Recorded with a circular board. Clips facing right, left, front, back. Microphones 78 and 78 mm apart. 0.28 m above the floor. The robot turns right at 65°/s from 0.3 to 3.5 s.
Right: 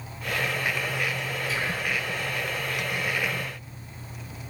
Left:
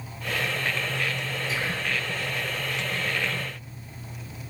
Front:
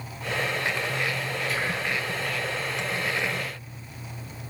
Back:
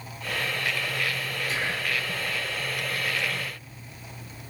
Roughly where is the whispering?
Behind left.